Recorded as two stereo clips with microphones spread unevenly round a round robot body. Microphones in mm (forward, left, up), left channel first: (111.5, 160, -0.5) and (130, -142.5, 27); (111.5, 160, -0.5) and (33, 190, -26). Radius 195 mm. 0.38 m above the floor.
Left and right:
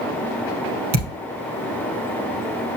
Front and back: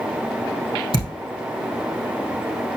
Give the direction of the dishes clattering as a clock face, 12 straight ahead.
No dishes clattering in this recording.